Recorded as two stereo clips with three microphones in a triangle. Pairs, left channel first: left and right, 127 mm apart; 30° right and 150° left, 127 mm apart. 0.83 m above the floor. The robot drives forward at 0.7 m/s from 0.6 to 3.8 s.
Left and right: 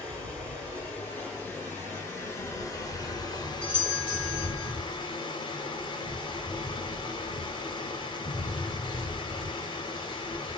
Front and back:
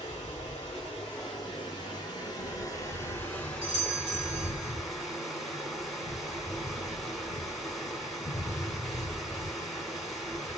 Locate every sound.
0.0 s running water: 15° left, 2.5 m; by 10.6 s 60° left, 0.9 m
3.6 s a doorbell: 165° left, 2 m; by 4.7 s 170° left, 2 m